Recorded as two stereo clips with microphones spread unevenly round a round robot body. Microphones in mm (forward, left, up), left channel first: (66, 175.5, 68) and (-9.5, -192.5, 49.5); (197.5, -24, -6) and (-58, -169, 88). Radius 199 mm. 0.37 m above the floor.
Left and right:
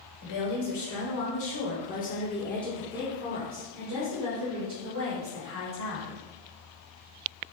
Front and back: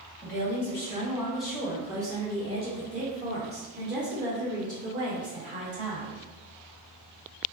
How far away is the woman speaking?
About 1.8 m.